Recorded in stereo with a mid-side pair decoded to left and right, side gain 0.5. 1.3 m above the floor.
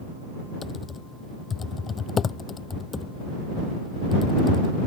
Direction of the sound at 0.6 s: 40° left.